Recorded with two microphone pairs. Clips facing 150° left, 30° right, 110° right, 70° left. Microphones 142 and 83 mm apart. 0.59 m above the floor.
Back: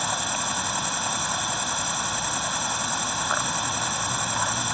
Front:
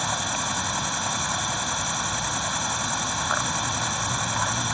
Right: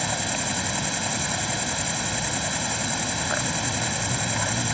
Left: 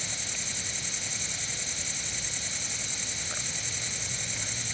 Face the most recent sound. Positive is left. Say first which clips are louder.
# even, right 13 dB
turn(degrees=-125)